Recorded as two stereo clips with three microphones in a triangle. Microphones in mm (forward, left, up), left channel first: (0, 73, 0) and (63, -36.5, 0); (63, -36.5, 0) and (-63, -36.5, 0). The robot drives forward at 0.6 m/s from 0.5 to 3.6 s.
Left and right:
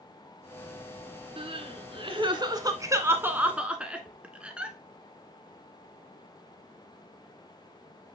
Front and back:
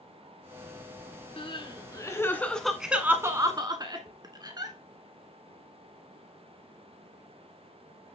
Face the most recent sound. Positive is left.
turn(degrees=-135)